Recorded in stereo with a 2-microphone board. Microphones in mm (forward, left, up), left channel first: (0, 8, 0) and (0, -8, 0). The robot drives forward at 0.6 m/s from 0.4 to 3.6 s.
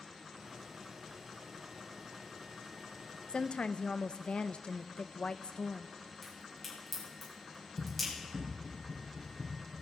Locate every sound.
3.3 s a woman speaking: 65° left (ahead or behind), 0.6 m; by 6.0 s 70° left (ahead or behind), 0.6 m
6.2 s a crack: 5° left (ahead or behind), 5.5 m
7.8 s running footsteps: 55° right (ahead or behind), 4 m; by 9.8 s 65° right (ahead or behind), 3.5 m